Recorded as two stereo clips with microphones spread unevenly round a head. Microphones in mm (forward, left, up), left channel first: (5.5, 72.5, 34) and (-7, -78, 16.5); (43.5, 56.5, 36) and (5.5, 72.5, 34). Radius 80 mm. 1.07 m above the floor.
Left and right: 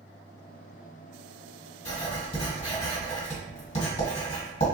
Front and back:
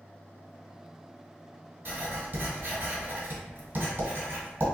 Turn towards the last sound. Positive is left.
turn(degrees=130)